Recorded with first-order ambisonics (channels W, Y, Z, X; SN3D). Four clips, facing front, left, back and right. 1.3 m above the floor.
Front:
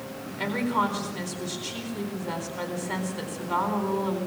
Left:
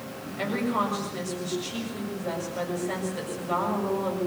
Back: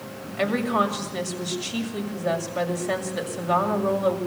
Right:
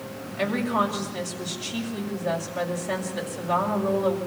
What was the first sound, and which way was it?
A woman speaking, 165° right.